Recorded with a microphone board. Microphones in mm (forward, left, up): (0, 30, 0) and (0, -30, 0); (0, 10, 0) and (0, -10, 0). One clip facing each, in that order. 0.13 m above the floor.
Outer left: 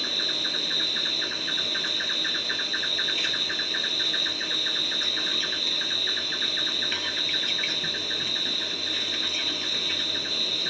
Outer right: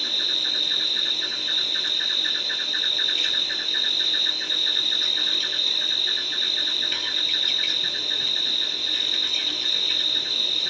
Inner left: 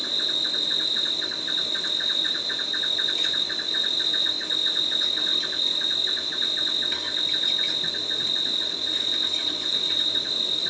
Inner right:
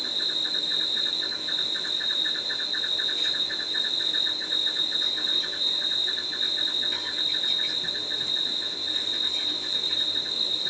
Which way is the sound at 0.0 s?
20° left (ahead or behind).